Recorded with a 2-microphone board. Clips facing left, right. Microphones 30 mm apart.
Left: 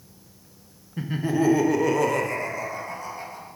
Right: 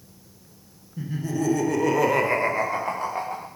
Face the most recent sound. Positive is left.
turn(degrees=-65)  # may be behind; listen again after turning